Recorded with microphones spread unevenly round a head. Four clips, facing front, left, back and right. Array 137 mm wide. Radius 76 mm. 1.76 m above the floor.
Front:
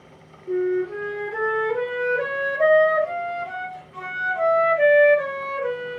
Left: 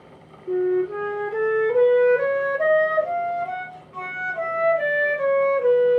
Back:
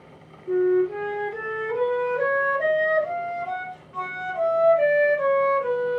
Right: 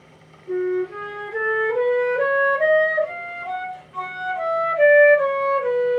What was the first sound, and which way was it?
A flute, 100° left.